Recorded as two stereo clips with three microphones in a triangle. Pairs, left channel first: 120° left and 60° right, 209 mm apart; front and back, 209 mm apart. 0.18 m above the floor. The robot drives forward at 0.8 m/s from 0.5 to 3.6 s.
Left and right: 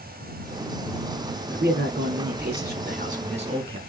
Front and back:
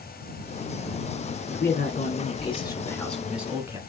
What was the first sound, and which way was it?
A man speaking, 35° right.